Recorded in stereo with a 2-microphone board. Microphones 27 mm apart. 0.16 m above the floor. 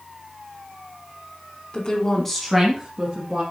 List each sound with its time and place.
1.7 s a woman speaking: 35° left (ahead or behind), 1.5 m; by 3.4 s 30° right (ahead or behind), 2 m